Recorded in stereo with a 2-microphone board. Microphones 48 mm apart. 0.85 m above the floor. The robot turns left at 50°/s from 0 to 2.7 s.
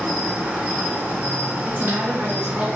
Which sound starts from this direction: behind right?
A woman speaking, at 1.6 s.